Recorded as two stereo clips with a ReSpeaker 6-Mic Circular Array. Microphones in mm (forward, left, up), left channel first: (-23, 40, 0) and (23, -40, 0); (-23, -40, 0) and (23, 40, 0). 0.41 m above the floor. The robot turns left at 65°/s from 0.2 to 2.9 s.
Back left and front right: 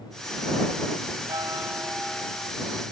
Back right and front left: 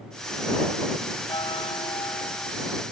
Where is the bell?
95° right; by 2.5 s 175° right.